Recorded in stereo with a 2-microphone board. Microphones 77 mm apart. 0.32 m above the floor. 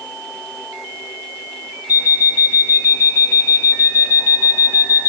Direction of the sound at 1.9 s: 55° left (ahead or behind).